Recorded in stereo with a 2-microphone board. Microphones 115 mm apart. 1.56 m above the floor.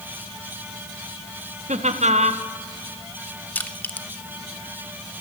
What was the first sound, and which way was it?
Laughter, 85° right.